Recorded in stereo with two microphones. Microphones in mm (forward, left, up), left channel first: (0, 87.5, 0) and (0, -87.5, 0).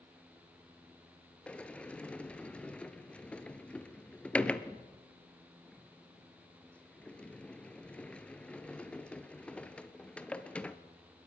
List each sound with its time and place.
1.5 s a sliding door: 5° left (ahead or behind), 1.0 m